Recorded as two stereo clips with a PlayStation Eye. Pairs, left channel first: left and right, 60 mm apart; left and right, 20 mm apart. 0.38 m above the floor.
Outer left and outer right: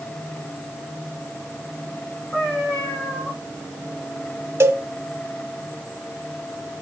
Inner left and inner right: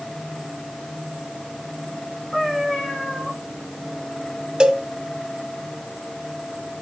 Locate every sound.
2.3 s a cat meowing: 20° left (ahead or behind), 8.5 m
4.6 s a cowbell: 45° right (ahead or behind), 1.4 m